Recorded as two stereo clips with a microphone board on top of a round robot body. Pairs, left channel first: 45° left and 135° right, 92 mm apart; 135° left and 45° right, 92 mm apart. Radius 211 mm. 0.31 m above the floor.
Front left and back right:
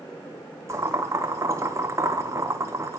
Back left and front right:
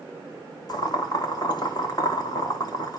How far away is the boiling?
About 2 m.